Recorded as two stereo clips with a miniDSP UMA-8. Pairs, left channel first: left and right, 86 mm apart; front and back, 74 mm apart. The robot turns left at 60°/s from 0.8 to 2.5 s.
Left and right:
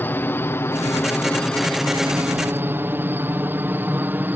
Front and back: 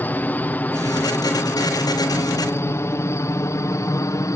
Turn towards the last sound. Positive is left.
turn(degrees=-30)